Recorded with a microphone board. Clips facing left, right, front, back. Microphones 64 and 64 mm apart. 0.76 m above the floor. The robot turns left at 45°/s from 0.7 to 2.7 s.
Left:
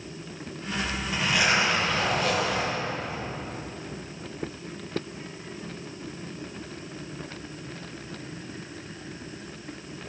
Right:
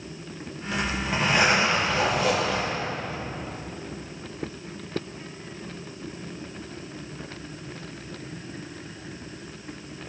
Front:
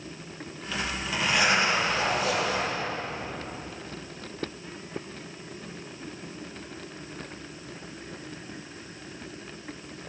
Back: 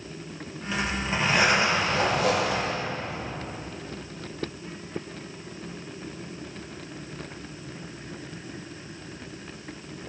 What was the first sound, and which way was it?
A zipper, 110° right.